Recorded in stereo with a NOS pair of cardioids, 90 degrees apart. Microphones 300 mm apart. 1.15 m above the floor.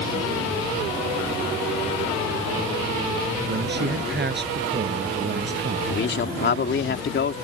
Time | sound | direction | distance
3.5 | a man speaking | 35° right | ?
5.9 | a man speaking | 40° left | ?